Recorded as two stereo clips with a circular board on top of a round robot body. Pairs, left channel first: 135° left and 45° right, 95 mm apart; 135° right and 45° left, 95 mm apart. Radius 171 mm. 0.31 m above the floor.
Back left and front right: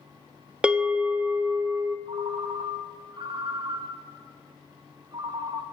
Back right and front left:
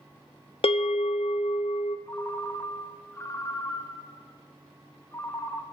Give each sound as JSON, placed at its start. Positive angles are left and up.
{"t": 0.6, "sound": "a bell", "azimuth_deg": -125, "distance_m": 0.5}
{"t": 2.1, "sound": "a ringtone", "azimuth_deg": -75, "distance_m": 1.3}